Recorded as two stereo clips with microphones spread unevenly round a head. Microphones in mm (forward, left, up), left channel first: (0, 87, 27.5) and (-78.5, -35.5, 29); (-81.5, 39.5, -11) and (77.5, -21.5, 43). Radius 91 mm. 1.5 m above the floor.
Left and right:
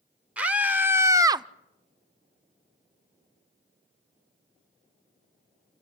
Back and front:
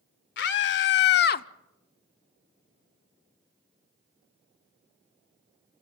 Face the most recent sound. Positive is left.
turn(degrees=180)